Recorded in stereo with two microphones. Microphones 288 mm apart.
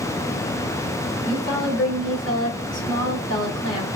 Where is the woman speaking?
40° left (ahead or behind), 2.5 m.